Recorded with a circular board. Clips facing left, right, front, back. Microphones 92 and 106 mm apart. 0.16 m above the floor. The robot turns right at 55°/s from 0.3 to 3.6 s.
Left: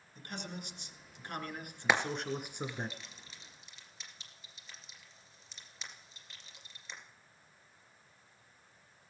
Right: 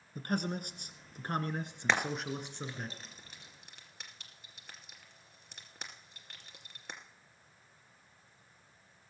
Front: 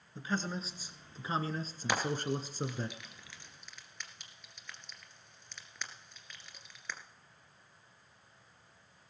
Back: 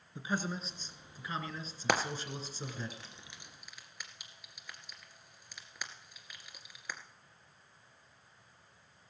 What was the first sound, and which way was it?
A man speaking, 105° right.